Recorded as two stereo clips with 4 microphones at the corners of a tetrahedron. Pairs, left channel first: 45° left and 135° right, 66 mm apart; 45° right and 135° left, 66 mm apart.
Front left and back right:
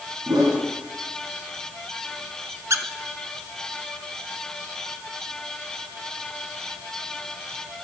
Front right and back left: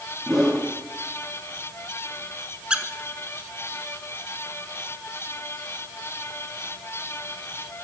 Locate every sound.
0.3 s a whoosh: 140° right, 2.5 m
2.7 s a squeak: 155° right, 0.6 m